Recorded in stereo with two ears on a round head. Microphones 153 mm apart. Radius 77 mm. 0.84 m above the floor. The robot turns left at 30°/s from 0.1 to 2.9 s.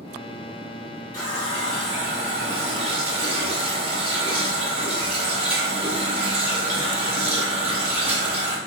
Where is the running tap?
20° left, 1.1 m; by 8.6 s 35° right, 1.1 m.